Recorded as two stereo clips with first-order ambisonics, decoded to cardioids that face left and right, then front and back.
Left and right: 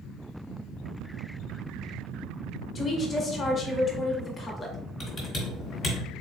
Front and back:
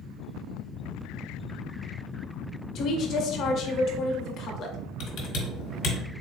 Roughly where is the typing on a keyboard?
Ahead left.